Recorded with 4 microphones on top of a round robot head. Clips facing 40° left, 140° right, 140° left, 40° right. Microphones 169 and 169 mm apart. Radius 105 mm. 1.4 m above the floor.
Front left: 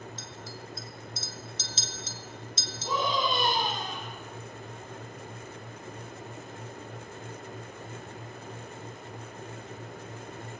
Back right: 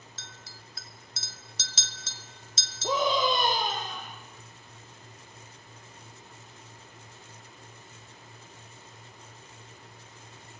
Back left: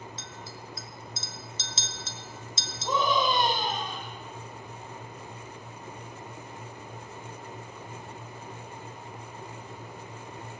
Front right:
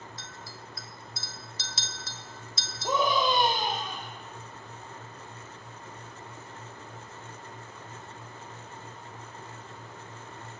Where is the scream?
115° right, 3 m.